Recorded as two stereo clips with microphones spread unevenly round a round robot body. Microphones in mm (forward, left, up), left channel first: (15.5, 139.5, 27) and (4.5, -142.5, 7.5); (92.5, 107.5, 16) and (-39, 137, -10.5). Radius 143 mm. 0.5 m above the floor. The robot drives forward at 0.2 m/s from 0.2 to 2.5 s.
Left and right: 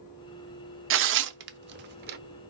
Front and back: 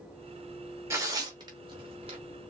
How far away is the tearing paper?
About 0.6 m.